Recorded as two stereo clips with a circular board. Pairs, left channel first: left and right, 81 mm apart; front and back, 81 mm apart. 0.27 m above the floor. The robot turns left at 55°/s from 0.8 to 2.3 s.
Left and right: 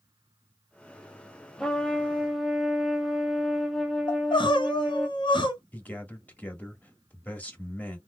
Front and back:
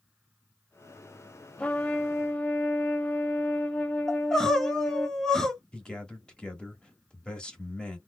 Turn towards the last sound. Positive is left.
turn(degrees=60)